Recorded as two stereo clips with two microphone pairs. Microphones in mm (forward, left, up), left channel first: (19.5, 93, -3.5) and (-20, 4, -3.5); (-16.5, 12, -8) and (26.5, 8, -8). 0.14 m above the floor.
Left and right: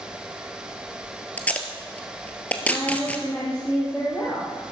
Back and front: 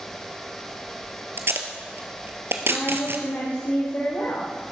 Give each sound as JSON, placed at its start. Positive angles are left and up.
{"t": 1.4, "sound": "tape being pulled", "azimuth_deg": -5, "distance_m": 1.5}
{"t": 2.7, "sound": "a woman speaking", "azimuth_deg": 140, "distance_m": 4.5}